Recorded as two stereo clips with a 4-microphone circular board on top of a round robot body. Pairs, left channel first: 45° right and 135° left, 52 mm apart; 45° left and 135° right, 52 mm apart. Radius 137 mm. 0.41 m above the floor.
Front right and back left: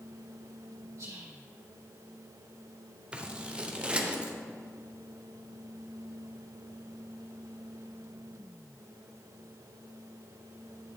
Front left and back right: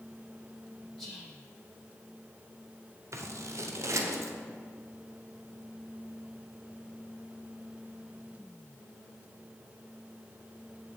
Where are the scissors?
155° right, 0.9 m.